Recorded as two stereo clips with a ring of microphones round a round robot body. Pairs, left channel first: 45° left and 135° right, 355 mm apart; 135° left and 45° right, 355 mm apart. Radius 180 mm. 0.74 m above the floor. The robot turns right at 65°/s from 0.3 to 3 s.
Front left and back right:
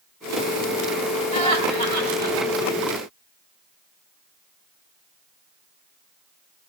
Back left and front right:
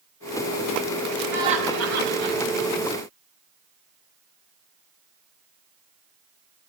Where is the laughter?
130° right, 3.5 m; by 2.4 s 65° right, 3.5 m.